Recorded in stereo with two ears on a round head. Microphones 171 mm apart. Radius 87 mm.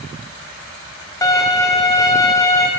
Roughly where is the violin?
Centre.